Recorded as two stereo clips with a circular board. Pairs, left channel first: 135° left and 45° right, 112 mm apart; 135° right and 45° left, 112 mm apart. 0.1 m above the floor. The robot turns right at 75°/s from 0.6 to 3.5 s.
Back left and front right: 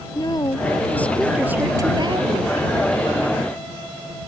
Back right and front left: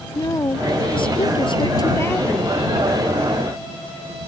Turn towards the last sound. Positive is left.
turn(degrees=35)